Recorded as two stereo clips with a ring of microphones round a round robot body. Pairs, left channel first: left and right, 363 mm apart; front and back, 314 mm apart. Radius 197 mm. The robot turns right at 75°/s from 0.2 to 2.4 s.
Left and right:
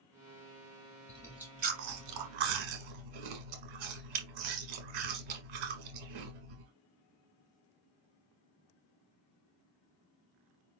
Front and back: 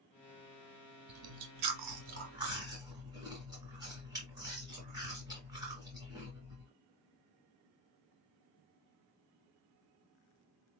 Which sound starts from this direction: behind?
Chewing, at 1.1 s.